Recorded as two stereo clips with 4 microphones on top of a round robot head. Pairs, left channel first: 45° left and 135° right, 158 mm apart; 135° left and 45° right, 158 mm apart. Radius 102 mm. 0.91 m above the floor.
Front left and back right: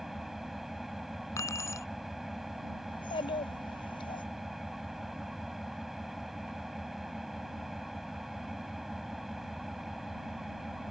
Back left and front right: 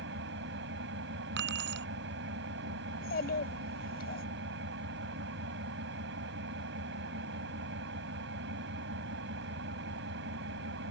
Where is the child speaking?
105° left.